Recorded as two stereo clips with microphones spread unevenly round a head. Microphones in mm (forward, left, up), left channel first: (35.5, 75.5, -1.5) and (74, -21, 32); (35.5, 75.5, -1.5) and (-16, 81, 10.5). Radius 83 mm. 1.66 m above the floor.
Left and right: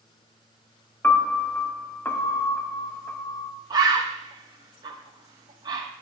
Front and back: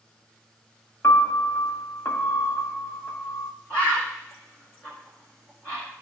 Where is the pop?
No pop in this recording.